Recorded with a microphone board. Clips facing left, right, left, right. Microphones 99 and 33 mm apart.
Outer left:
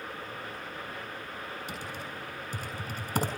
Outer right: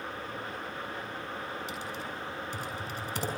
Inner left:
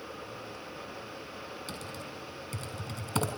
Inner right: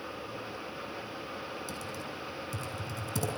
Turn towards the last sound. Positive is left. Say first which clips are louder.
# outer right 1 dB, inner right 2 dB
turn(degrees=40)  # may be behind; listen again after turning